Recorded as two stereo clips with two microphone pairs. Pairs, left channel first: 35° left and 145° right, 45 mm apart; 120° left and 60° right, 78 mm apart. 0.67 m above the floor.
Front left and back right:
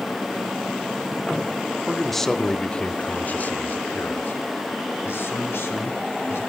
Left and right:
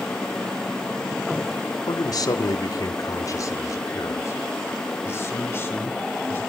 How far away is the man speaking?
About 1.6 m.